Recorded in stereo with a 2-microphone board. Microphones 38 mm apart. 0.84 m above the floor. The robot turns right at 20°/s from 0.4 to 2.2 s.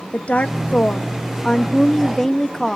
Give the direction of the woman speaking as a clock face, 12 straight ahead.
8 o'clock.